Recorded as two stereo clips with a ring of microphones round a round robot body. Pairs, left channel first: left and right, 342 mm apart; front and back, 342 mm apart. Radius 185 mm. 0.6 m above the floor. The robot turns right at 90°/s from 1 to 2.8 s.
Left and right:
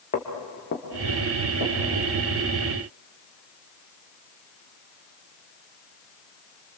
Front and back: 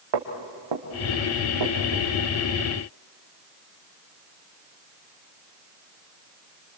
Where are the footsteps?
160° left, 3.5 m; by 2.1 s 120° right, 4.5 m.